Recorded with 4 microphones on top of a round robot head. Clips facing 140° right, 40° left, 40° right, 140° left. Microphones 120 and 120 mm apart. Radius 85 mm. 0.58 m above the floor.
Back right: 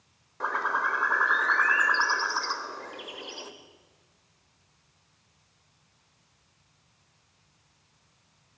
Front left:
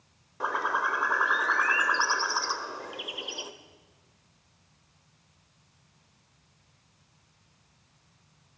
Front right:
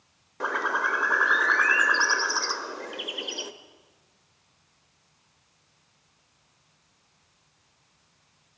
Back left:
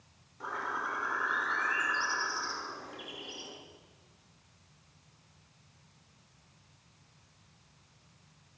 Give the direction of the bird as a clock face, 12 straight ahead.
1 o'clock.